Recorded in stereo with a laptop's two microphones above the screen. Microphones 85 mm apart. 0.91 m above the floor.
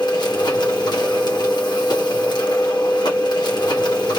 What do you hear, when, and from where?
0.0 s a machine running: 55° left (ahead or behind), 1.2 m